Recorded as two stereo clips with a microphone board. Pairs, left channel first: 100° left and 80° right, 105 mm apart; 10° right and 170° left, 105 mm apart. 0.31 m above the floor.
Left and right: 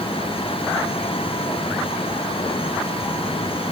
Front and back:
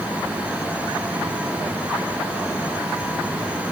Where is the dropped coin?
No dropped coin in this recording.